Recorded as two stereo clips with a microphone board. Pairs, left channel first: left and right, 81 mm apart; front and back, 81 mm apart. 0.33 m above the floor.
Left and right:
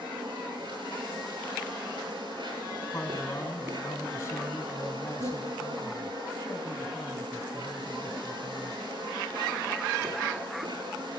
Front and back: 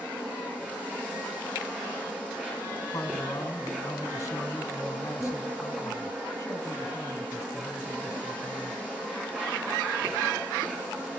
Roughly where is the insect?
Right.